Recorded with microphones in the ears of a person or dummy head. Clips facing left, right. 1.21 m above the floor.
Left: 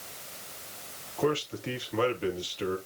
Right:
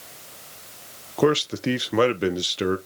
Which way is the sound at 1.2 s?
65° right (ahead or behind).